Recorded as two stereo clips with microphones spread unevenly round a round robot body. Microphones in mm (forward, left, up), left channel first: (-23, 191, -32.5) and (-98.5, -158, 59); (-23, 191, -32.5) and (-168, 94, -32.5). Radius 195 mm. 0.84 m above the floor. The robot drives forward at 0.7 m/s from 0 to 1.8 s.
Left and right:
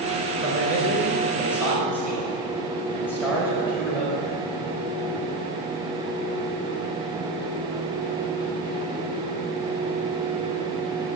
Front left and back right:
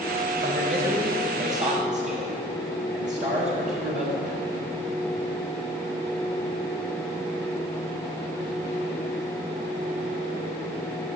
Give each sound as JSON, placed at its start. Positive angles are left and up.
{"t": 0.4, "sound": "a man speaking", "azimuth_deg": 165, "distance_m": 4.5}